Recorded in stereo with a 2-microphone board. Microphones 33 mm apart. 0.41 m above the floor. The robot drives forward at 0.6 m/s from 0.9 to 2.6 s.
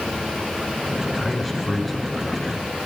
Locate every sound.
1.1 s a man speaking: 10° left (ahead or behind), 1.0 m; by 2.7 s 5° left (ahead or behind), 1.7 m